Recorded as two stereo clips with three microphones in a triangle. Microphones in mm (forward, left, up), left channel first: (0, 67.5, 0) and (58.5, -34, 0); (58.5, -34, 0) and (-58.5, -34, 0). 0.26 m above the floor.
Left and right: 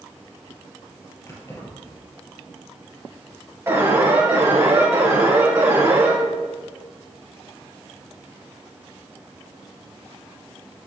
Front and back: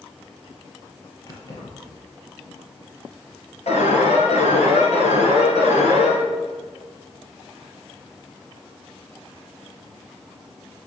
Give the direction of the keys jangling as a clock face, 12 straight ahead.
10 o'clock.